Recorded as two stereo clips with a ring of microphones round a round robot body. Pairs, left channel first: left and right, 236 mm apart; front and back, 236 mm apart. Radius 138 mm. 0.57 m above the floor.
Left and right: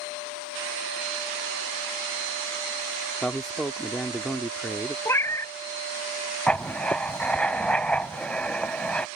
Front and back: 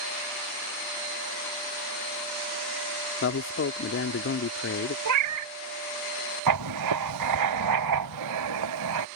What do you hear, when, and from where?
3.2 s a man speaking: straight ahead
5.0 s a cat meowing: 170° left
6.5 s writing: 175° left